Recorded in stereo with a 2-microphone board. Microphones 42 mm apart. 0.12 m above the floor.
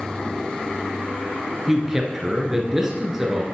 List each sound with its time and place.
1.7 s a man speaking: 10° right (ahead or behind), 1.5 m